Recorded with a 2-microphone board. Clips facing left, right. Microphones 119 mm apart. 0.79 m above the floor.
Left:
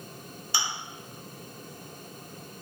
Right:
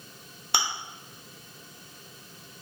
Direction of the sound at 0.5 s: 65° right (ahead or behind).